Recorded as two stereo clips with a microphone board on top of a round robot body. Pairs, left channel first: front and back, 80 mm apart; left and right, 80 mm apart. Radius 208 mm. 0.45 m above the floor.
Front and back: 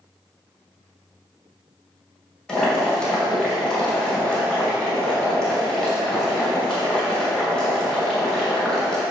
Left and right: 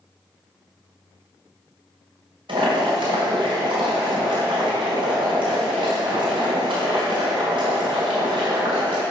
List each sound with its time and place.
2.5 s boiling: 80° right, 2.5 m